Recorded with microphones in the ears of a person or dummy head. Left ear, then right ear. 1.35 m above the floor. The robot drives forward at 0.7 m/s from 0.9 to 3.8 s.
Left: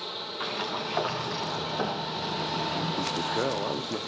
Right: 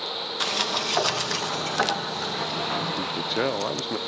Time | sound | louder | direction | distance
0.4 | a sliding door | right 7 dB | 85° right | 1.2 m
3.0 | a man speaking | right 2 dB | 50° right (ahead or behind) | 0.7 m